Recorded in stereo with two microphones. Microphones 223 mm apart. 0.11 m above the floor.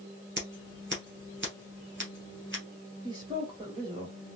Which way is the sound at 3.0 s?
20° right (ahead or behind).